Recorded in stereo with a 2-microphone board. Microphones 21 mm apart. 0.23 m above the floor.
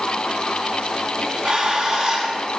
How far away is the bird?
About 1.7 m.